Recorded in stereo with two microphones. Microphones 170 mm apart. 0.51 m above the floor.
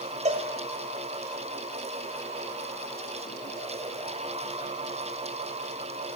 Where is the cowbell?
40° right (ahead or behind), 2.0 m.